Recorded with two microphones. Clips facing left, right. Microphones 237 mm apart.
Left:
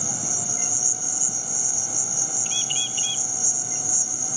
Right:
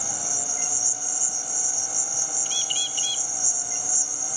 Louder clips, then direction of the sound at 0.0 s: Left 4 dB; 40° left (ahead or behind).